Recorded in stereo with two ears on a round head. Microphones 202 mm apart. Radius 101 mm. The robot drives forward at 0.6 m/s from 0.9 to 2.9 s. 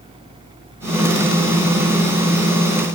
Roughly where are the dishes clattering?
No dishes clattering in this recording.